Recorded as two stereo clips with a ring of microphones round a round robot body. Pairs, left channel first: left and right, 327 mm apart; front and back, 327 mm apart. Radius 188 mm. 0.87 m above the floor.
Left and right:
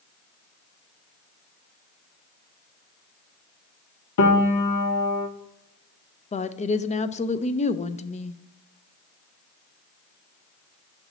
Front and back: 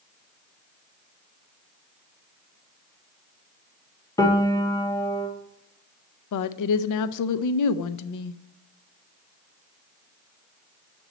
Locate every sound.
4.2 s a piano: 80° left, 1.0 m
6.3 s a woman speaking: 20° left, 0.5 m